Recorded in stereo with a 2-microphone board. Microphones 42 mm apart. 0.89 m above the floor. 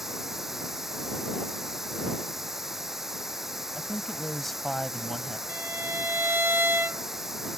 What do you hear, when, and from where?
0.0 s running water: 10° right (ahead or behind)
3.8 s a woman speaking: 5° left (ahead or behind)
5.5 s a violin: 70° right (ahead or behind)